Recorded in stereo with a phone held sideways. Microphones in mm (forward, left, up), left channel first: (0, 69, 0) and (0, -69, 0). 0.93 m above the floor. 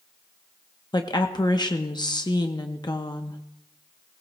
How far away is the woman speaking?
About 0.7 m.